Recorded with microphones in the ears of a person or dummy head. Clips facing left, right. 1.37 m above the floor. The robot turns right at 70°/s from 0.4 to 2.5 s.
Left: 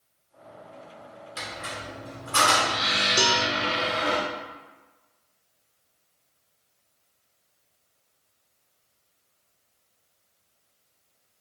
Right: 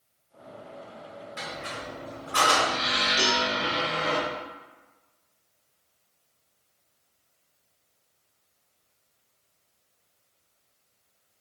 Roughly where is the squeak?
Left.